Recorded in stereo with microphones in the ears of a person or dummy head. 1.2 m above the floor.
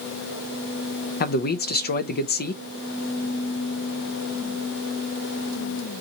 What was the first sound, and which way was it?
A man speaking, 50° left (ahead or behind).